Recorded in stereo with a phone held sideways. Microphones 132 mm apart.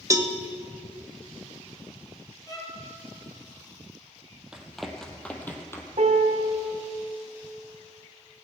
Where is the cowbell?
25° right (ahead or behind), 1.0 m.